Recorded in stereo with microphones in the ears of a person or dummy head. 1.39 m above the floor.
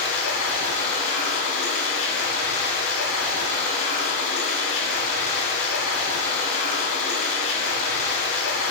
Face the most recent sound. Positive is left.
turn(degrees=65)  # may be behind; listen again after turning